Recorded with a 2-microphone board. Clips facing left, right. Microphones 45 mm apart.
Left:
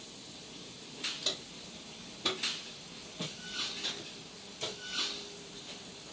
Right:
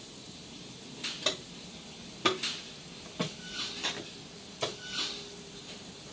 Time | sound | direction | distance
1.2 | footsteps | 50° right (ahead or behind) | 3 m
3.8 | tearing paper | 60° right (ahead or behind) | 1.5 m